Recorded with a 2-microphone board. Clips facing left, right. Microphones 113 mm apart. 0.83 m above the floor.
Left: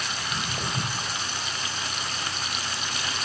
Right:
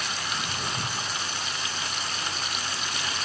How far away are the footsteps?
About 4 m.